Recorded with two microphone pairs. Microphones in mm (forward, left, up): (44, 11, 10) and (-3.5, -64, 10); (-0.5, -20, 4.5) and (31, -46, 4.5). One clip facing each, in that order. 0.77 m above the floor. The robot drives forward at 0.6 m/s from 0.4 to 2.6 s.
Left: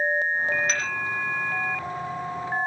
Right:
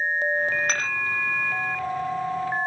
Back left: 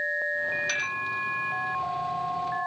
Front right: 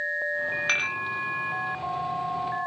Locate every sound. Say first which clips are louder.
0.7 s dishes clattering: right 1 dB, front right 3 dB; 85° right, 1.5 m; by 1.0 s 90° right, 1.5 m